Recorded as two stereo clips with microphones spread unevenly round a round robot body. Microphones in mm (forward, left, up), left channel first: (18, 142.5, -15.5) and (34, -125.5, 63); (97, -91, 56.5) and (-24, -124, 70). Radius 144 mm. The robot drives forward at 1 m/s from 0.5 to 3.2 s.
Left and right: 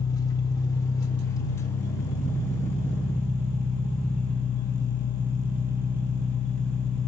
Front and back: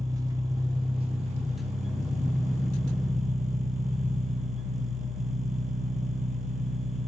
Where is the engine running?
140° left, 1.2 m; by 7.1 s 170° left, 3.5 m.